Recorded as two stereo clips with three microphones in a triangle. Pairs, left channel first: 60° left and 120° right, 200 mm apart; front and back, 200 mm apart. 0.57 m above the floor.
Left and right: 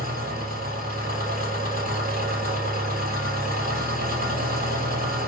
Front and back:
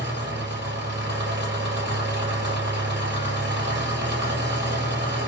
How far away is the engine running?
About 2.5 m.